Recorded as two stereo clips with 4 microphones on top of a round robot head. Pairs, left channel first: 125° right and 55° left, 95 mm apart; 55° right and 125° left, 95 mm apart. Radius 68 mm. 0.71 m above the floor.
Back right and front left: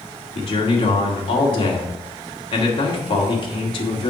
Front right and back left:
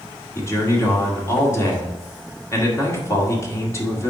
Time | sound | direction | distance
0.3 | a man speaking | 115° right | 2.0 m